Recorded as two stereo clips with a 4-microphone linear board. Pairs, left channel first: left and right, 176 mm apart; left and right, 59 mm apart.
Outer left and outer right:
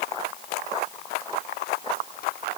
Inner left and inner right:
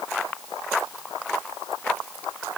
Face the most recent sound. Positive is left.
No sound to turn to.